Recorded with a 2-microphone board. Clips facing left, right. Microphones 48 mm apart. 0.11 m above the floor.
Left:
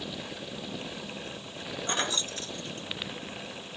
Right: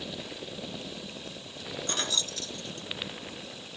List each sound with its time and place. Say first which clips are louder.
1.9 s keys jangling: left 2 dB; 25° left (ahead or behind), 0.9 m; by 3.2 s 35° left (ahead or behind), 1.5 m